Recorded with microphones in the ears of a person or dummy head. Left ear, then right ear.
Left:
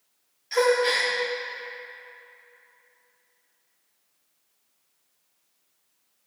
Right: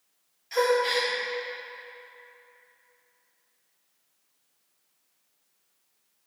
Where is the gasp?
5° left (ahead or behind), 1.4 m.